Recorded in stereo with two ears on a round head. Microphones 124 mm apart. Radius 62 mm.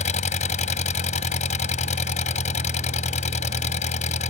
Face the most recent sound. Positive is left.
turn(degrees=55)  # may be behind; listen again after turning